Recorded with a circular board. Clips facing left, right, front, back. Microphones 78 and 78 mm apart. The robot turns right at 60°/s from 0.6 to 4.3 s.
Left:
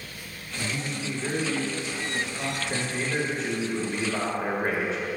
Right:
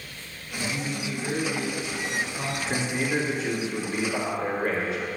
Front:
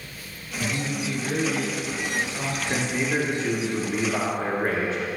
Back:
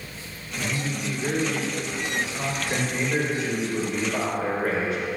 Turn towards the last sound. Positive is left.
turn(degrees=40)